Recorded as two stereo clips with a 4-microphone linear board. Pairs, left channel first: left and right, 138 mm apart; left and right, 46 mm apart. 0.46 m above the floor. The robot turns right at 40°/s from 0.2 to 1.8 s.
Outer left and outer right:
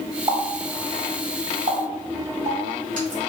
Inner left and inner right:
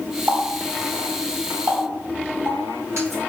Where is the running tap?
35° right (ahead or behind), 2.0 m; by 3.2 s 70° right (ahead or behind), 2.0 m.